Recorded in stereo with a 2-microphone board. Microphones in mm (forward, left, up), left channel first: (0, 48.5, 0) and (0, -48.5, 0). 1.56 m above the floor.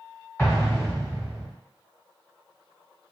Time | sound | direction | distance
0.4 | an explosion | 25° left (ahead or behind) | 1.3 m